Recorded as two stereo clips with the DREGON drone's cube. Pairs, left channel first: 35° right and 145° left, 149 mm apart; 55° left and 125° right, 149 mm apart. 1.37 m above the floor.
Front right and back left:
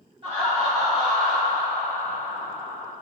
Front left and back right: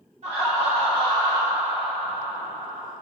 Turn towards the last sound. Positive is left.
turn(degrees=100)